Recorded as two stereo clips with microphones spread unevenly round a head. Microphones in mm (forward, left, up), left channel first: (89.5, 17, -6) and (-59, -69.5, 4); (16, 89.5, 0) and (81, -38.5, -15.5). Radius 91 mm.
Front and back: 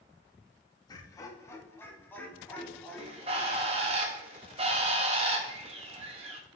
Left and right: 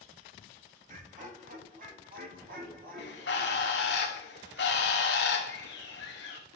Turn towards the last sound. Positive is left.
turn(degrees=150)